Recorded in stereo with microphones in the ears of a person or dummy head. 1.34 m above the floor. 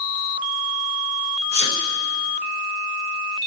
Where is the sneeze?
55° left (ahead or behind), 1.0 m.